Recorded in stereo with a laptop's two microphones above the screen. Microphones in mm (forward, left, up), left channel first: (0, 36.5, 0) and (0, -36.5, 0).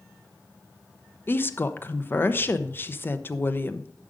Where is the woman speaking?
30° left (ahead or behind), 0.7 m.